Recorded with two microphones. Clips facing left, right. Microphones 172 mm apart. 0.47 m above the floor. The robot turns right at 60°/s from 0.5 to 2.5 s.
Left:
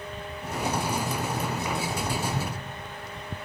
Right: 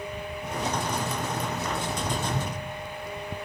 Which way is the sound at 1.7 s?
35° right (ahead or behind).